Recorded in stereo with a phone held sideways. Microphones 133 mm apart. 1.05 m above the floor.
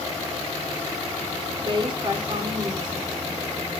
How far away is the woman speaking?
About 3.5 m.